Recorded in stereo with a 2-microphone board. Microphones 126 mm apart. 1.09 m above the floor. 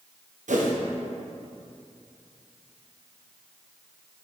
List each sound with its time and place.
0.5 s a whoosh: 80° right, 0.8 m